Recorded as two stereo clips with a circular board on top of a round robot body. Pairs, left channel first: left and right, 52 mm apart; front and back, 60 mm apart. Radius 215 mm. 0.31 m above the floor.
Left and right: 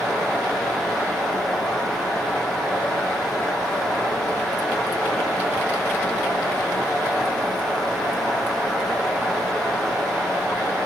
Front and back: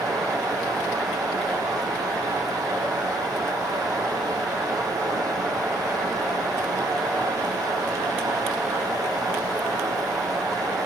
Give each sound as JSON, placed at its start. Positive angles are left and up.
{"t": 0.0, "sound": "running water", "azimuth_deg": 175, "distance_m": 8.0}